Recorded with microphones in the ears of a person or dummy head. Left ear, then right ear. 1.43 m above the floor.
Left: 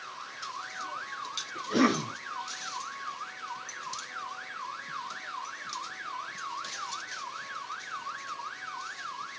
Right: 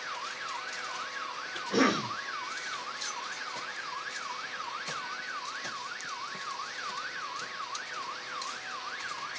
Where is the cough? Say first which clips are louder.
Even; 10° right (ahead or behind), 1.5 m.